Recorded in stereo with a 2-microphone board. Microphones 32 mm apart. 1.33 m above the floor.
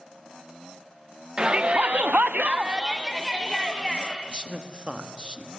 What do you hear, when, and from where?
1.4 s a shout: 35° right (ahead or behind), 1.6 m; by 4.2 s 5° left (ahead or behind), 3 m
4.3 s a man speaking: 30° right (ahead or behind), 1.9 m